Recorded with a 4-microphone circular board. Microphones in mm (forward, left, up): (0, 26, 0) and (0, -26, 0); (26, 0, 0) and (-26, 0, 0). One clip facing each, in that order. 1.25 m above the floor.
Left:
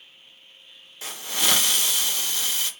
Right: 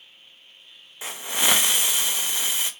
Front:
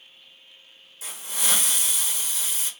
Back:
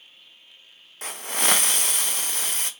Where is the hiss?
160° right, 0.5 m.